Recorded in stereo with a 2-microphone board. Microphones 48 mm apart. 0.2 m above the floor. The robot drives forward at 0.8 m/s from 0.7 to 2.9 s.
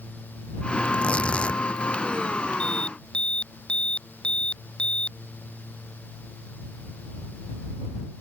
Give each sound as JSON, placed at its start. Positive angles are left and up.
{"t": 0.8, "sound": "tearing paper", "side_deg": 25}
{"t": 2.6, "sound": "an alarm", "side_deg": 20}